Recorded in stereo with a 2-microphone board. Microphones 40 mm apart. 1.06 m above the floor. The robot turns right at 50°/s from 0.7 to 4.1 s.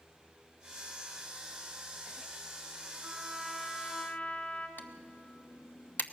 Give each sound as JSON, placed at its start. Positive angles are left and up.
{"t": 3.0, "sound": "a trumpet", "azimuth_deg": -15, "distance_m": 2.5}
{"t": 4.8, "sound": "typing on a keyboard", "side_deg": 50, "distance_m": 1.0}